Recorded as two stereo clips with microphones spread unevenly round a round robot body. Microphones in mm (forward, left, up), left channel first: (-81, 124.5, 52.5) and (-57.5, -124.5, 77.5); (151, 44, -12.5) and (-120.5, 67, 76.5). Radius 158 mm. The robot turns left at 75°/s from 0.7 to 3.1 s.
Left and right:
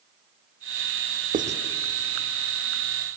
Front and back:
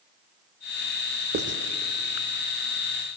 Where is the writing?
125° right, 0.8 m; by 1.6 s 145° right, 0.8 m.